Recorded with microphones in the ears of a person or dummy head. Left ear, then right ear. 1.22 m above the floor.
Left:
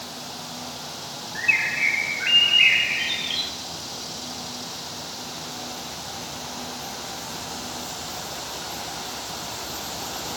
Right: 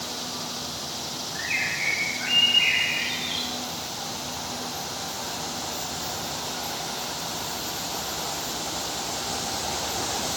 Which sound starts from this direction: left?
A bird, at 1.4 s.